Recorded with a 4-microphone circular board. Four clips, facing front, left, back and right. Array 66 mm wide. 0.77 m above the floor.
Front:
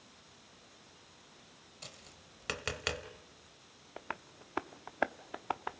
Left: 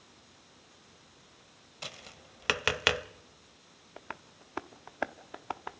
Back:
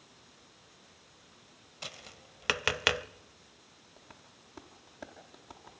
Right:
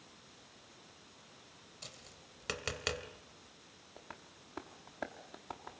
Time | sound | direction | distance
1.8 | tapping | 130° left | 0.8 m
4.0 | tapping | 30° left | 0.8 m